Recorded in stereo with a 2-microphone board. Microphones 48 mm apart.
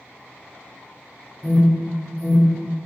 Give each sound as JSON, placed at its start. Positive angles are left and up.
{"t": 1.4, "sound": "an alarm", "side_deg": 10, "distance_m": 1.4}